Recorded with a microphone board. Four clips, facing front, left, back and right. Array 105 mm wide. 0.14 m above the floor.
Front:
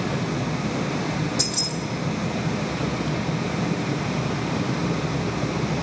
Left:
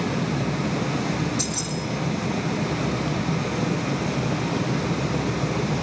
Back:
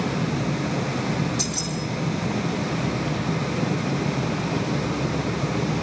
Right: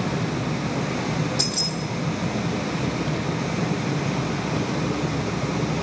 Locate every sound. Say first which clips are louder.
1.4 s keys jangling: right 1 dB, even; 80° right, 4 m